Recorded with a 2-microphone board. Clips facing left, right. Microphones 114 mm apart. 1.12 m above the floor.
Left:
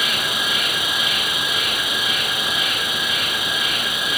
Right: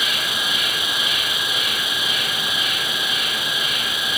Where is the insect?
65° left (ahead or behind), 2.5 m.